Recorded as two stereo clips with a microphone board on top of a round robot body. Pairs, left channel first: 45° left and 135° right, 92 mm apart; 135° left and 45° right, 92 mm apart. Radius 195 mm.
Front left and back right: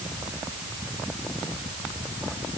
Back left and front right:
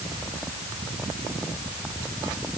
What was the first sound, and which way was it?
Only background noise.